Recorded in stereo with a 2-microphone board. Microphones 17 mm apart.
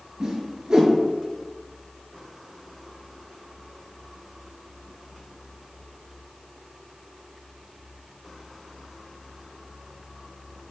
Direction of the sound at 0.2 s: 40° right (ahead or behind).